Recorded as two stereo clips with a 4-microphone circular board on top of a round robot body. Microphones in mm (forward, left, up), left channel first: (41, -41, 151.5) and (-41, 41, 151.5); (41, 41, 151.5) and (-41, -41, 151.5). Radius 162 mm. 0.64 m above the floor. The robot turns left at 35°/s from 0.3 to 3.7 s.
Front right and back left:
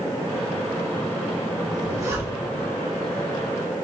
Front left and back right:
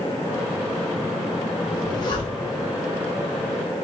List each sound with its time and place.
1.7 s a zipper: 90° left, 1.3 m; by 2.6 s 60° left, 1.3 m